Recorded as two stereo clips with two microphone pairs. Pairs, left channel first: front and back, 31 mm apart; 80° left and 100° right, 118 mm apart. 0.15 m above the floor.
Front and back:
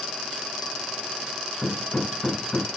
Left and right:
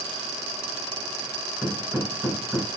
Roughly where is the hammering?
Ahead right.